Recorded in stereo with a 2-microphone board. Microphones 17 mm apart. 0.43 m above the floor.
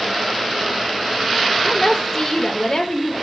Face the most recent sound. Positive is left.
turn(degrees=35)  # may be behind; listen again after turning